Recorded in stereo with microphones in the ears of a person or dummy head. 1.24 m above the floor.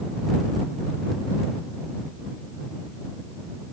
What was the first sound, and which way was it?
Only background noise.